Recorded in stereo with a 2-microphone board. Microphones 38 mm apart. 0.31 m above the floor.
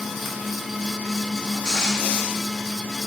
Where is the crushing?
20° right (ahead or behind), 5 m.